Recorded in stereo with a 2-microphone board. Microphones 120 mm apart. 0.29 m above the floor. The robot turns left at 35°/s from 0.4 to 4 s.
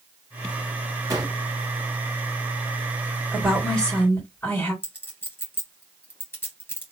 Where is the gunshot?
30° right (ahead or behind), 1.8 m; by 1.4 s 40° right (ahead or behind), 1.8 m.